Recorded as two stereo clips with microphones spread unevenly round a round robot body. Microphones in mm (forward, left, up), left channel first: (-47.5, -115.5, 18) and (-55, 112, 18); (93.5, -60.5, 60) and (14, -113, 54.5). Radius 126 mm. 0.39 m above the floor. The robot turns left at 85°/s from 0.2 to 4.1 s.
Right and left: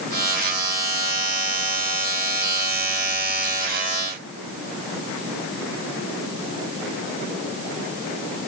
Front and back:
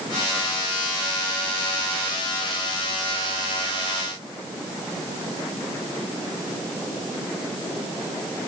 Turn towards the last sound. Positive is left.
No sound to turn to.